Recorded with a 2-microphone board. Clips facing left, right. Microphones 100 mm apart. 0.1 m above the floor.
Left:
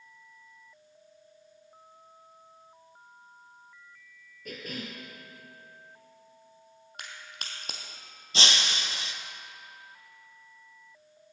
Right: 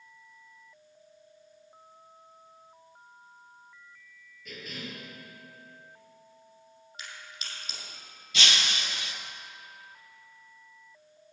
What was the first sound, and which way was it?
A cough, 50° left (ahead or behind).